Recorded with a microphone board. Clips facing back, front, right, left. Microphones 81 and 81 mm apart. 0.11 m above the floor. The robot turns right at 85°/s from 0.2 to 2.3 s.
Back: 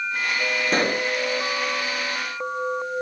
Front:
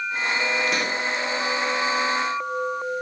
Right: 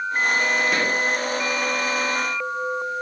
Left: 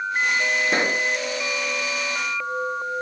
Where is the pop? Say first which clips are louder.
Back 3 dB, even; 140° left, 0.6 m; by 1.1 s 175° left, 0.6 m.